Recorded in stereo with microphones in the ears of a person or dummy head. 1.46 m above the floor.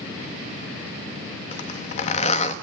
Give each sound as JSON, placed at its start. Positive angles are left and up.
{"t": 1.5, "sound": "a zipper", "side_deg": 40, "distance_m": 1.2}